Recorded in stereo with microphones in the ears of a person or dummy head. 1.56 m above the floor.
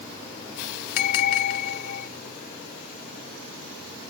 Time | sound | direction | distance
1.0 | a bell | 55° left (ahead or behind) | ?